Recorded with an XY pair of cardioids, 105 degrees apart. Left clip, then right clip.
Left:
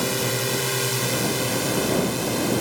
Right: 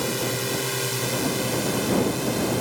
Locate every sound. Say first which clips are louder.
0.0 s a drone: left 2 dB; 15° left